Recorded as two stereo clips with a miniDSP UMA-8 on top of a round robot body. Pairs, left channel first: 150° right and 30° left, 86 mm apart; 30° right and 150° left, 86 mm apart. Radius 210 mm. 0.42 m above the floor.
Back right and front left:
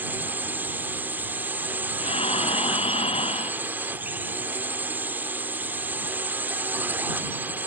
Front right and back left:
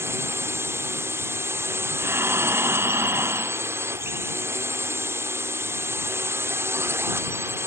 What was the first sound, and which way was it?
A drone, 95° left.